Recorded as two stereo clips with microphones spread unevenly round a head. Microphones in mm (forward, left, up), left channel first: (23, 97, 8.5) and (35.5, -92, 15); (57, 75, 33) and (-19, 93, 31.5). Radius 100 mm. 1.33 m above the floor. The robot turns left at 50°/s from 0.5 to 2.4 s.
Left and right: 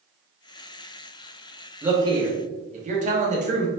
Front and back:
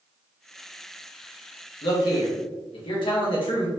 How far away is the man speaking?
About 1.7 m.